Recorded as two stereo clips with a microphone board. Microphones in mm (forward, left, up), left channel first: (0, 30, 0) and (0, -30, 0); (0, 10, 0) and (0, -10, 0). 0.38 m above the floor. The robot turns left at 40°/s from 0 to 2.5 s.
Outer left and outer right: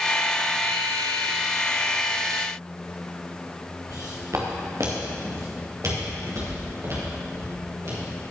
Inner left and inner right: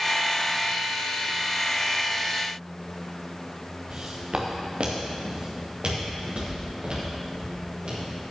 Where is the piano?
I don't hear a piano.